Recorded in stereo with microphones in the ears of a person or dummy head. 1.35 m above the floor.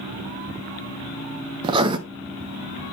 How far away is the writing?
About 0.8 m.